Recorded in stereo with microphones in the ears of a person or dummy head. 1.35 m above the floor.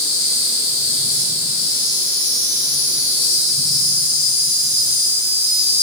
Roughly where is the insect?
Left.